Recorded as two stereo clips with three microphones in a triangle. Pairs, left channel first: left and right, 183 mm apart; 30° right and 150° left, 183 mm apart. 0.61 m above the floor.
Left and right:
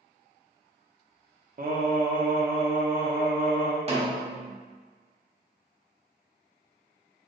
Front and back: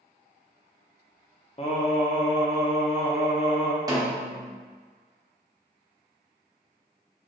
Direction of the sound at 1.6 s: 80° right.